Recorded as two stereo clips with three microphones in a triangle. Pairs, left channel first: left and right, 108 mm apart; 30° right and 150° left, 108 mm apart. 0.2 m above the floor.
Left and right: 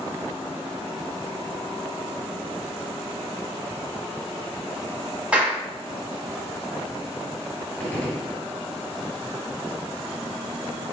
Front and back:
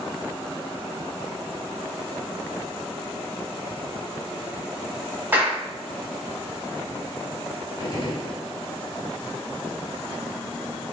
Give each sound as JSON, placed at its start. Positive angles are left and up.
{"t": 5.3, "sound": "a clap", "azimuth_deg": -155, "distance_m": 0.9}
{"t": 7.8, "sound": "a gunshot", "azimuth_deg": 15, "distance_m": 1.4}